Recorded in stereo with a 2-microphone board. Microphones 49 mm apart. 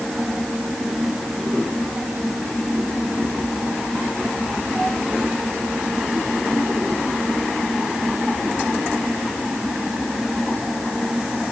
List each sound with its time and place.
Only background noise.